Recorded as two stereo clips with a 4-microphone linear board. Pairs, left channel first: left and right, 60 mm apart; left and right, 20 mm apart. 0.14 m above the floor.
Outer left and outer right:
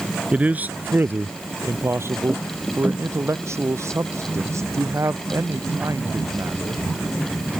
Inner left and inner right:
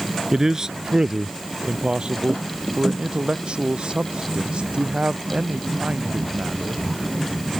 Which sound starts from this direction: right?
A man speaking, at 0.3 s.